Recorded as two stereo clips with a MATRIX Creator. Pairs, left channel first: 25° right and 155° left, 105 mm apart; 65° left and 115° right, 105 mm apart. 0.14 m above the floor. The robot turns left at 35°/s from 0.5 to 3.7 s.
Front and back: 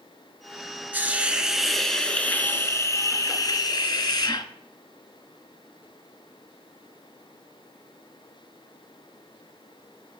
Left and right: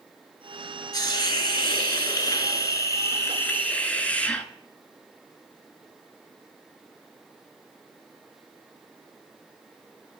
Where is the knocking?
I don't hear knocking.